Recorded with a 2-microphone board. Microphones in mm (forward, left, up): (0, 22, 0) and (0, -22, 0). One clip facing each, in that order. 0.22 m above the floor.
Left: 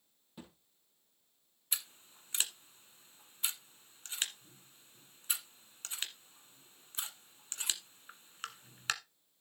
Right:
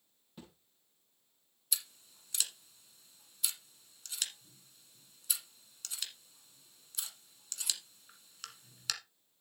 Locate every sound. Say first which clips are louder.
0.4 s a thud: left 1 dB; 5° left (ahead or behind), 3.5 m
1.7 s scissors: even; 35° left (ahead or behind), 1.4 m